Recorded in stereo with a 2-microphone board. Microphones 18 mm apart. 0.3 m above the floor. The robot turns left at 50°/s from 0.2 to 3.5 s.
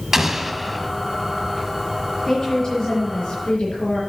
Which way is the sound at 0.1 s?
145° right.